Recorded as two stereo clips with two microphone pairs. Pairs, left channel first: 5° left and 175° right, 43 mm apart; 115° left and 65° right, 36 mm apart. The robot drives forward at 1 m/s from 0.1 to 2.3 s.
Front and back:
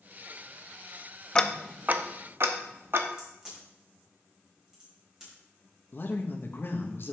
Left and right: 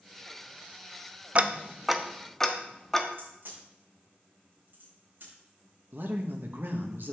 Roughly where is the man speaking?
Ahead right.